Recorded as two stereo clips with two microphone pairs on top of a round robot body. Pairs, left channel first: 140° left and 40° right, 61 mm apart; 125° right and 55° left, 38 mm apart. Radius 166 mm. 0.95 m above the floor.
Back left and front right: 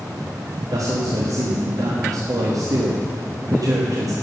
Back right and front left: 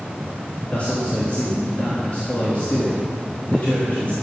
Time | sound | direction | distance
0.7 | a man speaking | 65° right | 1.7 m